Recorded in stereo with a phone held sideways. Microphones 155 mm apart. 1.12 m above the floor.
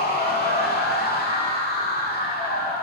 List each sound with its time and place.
0.0 s a machine running: 80° left, 2.0 m